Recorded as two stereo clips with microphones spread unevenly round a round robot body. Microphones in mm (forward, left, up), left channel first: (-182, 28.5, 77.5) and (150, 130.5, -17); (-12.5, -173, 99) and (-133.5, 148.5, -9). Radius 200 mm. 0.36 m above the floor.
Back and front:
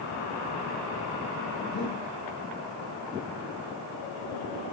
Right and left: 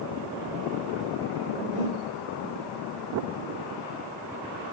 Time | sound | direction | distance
1.7 | breathing | straight behind | 4.5 m